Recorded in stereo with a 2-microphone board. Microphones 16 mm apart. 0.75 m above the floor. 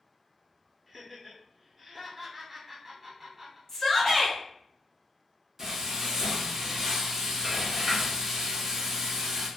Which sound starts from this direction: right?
Frying, at 5.6 s.